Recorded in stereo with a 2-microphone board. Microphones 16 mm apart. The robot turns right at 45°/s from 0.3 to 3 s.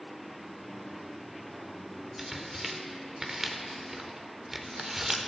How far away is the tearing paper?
About 0.9 m.